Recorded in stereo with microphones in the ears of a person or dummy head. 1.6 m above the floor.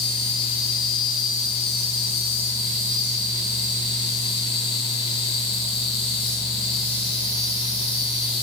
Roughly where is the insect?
Left.